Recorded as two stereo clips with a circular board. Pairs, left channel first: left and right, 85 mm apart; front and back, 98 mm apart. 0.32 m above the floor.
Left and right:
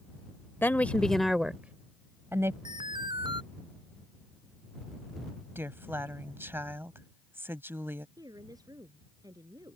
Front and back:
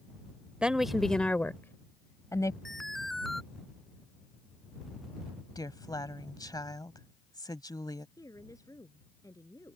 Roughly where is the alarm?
Right.